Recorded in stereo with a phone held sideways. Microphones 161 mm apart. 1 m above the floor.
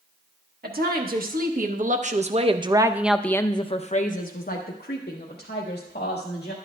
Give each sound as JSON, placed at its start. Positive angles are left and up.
{"t": 0.6, "sound": "a woman speaking", "side_deg": -65, "distance_m": 1.5}